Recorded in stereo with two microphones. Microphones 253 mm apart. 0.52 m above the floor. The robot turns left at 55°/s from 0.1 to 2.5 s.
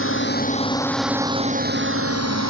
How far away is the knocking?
I don't hear knocking.